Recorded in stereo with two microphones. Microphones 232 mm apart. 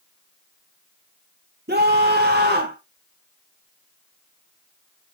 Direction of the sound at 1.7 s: 50° right (ahead or behind).